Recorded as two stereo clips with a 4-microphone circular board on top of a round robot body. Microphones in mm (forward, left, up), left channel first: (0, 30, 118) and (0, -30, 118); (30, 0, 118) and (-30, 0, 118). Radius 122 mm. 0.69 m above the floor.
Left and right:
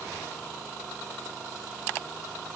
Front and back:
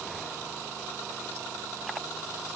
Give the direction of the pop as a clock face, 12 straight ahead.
No pop in this recording.